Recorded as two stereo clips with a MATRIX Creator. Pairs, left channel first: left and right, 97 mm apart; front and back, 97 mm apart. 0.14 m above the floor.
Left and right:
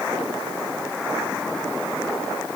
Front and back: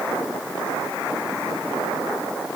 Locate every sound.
Only background noise.